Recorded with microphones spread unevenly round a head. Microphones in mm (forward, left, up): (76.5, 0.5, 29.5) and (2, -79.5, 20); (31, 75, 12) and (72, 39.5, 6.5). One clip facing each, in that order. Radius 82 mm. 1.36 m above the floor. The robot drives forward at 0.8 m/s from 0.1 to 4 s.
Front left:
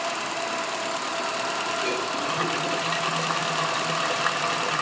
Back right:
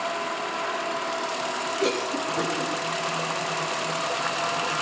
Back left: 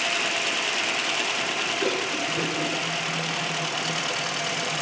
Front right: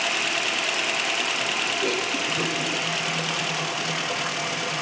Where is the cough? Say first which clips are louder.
Back right 2 dB, front right 1 dB; 160° right, 7 m.